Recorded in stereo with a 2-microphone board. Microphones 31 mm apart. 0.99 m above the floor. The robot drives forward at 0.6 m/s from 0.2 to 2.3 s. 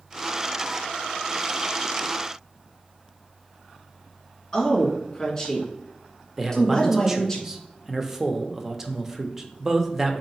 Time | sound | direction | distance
4.5 | a woman speaking | 20° left (ahead or behind) | 1.9 m
6.4 | a man speaking | 15° right (ahead or behind) | 0.6 m